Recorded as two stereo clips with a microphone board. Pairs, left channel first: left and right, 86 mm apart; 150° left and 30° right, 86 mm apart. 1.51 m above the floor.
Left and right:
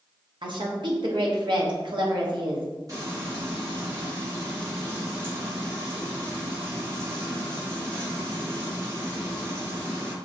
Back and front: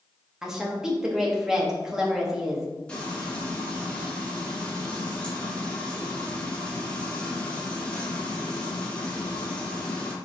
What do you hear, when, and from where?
0.4 s a woman speaking: 115° right, 1.0 m
2.9 s frying: 130° right, 1.7 m